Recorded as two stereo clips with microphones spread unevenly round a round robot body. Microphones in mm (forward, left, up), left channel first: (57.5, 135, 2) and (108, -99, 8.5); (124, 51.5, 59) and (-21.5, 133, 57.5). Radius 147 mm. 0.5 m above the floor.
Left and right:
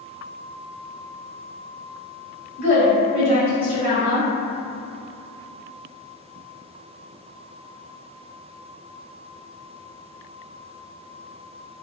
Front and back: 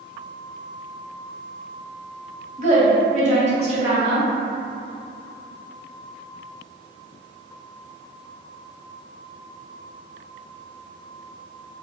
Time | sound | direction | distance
2.6 | a woman speaking | 125° left | 1.2 m